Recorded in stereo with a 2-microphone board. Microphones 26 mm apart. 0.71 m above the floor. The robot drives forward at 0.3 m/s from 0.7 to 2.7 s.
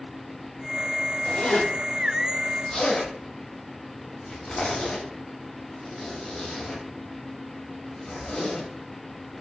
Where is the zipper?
30° left (ahead or behind), 0.7 m; by 8.7 s 20° left (ahead or behind), 1.0 m.